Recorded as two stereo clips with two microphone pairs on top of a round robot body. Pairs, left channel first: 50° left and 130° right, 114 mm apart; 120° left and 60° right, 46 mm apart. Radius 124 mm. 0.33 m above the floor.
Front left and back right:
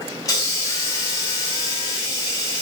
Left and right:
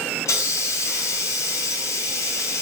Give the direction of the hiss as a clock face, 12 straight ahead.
8 o'clock.